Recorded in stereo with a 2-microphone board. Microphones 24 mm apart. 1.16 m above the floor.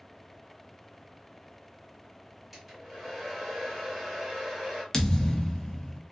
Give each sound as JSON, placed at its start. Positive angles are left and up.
{"t": 2.5, "sound": "a hair dryer", "side_deg": -10, "distance_m": 1.1}
{"t": 4.9, "sound": "a thud", "side_deg": 15, "distance_m": 0.5}